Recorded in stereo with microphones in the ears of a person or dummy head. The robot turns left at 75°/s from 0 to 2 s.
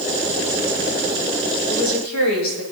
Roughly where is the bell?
I don't hear a bell.